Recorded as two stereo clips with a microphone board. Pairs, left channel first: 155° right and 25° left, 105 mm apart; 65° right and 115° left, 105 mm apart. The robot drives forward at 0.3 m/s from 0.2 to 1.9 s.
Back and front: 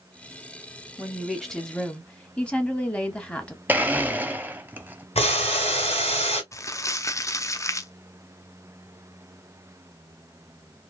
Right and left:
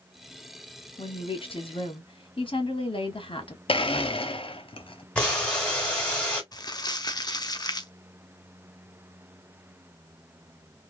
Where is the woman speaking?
60° right, 1.0 m; by 3.6 s 80° right, 1.0 m.